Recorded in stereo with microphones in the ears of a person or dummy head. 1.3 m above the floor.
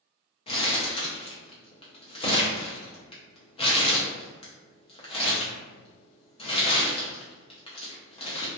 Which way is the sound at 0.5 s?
25° left (ahead or behind).